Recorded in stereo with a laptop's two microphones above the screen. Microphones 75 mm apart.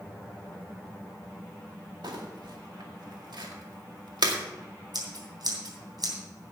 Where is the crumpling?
75° right (ahead or behind), 2 m.